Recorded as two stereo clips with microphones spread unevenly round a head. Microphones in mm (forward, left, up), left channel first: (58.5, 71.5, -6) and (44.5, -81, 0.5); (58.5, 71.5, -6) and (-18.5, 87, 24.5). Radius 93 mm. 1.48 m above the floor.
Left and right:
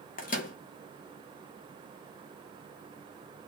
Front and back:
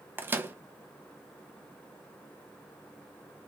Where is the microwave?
125° left, 0.8 m.